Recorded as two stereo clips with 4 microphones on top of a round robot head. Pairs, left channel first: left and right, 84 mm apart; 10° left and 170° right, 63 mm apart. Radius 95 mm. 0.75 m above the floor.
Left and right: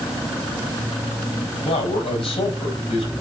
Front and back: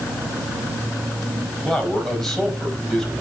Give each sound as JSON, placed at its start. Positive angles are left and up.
{"t": 1.6, "sound": "a man speaking", "azimuth_deg": 95, "distance_m": 4.5}